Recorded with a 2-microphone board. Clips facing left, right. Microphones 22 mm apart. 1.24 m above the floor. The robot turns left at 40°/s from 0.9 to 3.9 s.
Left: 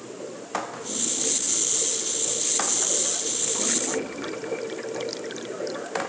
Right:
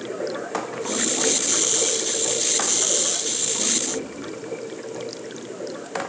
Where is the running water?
80° right; by 6.1 s 160° left.